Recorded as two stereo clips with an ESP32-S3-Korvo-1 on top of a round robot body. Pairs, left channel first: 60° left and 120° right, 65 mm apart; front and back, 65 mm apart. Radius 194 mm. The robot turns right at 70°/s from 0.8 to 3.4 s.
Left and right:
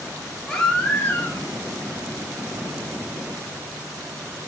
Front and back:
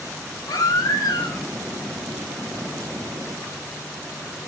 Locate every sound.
0.5 s a baby crying: 20° right, 2.5 m; by 1.5 s 25° left, 2.5 m